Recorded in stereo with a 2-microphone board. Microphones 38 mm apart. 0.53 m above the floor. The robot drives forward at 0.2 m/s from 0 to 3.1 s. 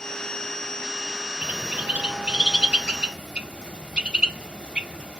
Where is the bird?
40° right (ahead or behind), 0.5 m; by 5.2 s 25° right (ahead or behind), 0.8 m.